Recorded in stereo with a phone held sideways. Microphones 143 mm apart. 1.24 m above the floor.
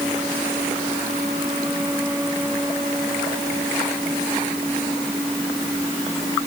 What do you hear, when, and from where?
Only background noise.